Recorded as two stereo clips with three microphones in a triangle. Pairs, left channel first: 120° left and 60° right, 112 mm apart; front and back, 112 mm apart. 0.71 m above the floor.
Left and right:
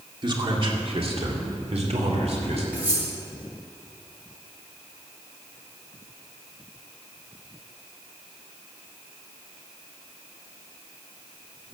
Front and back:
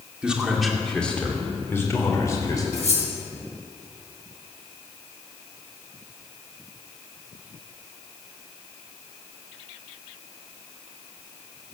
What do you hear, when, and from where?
0.2 s a man speaking: 100° right, 2 m; by 2.6 s 55° right, 3.5 m
2.7 s cutlery clinking: 20° left, 5.5 m